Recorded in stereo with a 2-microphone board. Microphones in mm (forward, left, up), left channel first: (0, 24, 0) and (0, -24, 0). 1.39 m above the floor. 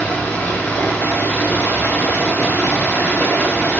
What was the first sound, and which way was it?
Running water, 40° left (ahead or behind).